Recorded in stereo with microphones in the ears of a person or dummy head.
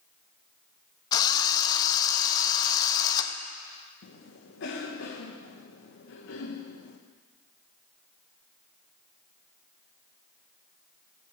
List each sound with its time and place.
1.1 s a drill: 25° left (ahead or behind), 0.7 m
4.0 s a cough: 70° left (ahead or behind), 0.9 m